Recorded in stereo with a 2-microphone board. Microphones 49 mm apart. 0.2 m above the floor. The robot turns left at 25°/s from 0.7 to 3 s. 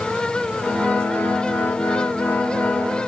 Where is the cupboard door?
No cupboard door in this recording.